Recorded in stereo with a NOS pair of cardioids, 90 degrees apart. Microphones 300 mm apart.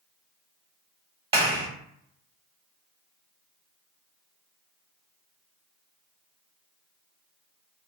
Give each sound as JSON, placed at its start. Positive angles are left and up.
{"t": 1.3, "sound": "a clap", "azimuth_deg": -20, "distance_m": 1.3}